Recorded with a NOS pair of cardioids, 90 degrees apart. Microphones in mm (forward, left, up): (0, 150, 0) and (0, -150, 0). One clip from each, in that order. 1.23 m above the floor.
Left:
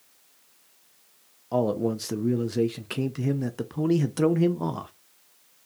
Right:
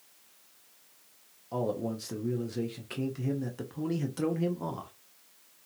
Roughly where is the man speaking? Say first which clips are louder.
Left 7 dB; ahead left.